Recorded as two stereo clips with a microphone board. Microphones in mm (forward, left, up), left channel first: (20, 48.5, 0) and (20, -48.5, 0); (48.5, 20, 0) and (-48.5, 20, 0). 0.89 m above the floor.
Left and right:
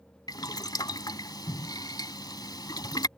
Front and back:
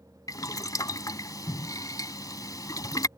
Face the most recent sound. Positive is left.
turn(degrees=50)